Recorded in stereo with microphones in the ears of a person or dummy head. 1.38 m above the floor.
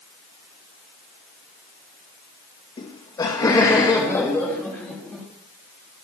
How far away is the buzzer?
No buzzer in this recording.